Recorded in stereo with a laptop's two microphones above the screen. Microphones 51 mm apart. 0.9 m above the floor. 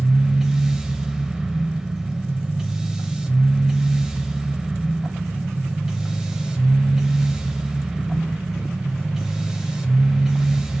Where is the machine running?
10° right (ahead or behind), 0.7 m.